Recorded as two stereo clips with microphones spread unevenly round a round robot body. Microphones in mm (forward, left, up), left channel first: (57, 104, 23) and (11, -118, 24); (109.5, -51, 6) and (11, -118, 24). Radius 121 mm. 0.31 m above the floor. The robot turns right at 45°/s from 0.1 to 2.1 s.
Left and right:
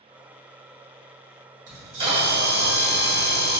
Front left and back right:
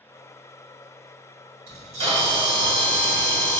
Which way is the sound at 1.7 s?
170° right.